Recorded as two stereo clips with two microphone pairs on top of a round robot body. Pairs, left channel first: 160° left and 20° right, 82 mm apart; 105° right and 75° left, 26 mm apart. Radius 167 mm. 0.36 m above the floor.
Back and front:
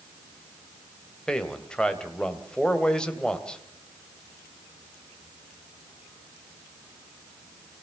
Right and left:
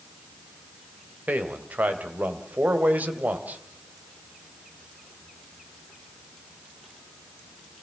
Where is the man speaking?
80° left, 2.5 m.